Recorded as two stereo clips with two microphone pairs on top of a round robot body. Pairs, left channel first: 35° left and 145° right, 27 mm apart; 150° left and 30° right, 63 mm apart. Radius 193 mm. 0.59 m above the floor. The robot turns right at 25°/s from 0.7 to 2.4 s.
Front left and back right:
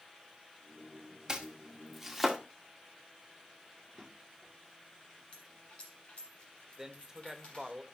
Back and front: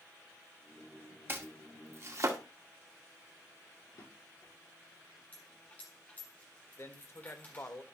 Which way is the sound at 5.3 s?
85° left.